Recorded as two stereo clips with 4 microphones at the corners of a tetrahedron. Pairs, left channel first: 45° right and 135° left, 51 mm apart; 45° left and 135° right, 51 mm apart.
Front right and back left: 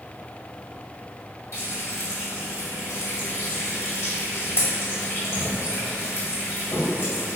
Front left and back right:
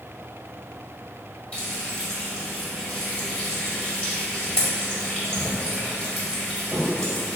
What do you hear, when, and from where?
1.5 s frying: 20° right, 1.7 m